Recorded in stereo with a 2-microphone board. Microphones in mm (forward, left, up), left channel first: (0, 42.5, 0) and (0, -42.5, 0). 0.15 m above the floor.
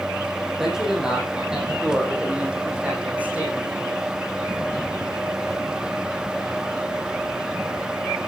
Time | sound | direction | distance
0.6 | a man speaking | 5° right (ahead or behind) | 6 m